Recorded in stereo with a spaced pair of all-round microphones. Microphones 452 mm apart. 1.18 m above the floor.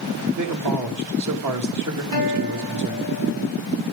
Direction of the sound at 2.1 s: 50° right (ahead or behind).